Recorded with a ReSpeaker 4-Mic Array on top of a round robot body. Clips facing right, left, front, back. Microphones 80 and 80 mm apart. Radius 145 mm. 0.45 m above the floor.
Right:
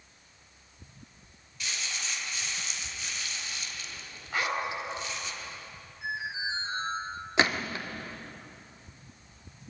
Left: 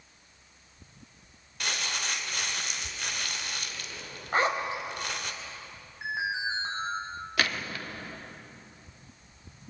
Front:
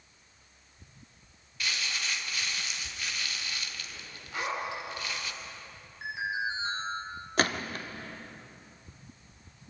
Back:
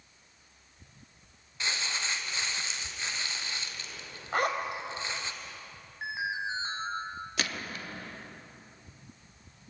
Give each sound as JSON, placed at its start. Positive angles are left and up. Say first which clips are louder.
{"t": 1.6, "sound": "crumpling", "louder": "left 4 dB, back 1 dB", "azimuth_deg": 120, "distance_m": 1.8}
{"t": 4.3, "sound": "a zipper", "louder": "left 4 dB, back 4 dB", "azimuth_deg": 145, "distance_m": 3.5}
{"t": 6.0, "sound": "an alarm", "louder": "left 3 dB, front 1 dB", "azimuth_deg": 115, "distance_m": 8.0}
{"t": 7.4, "sound": "a gunshot", "louder": "right 4 dB, front 9 dB", "azimuth_deg": -30, "distance_m": 1.7}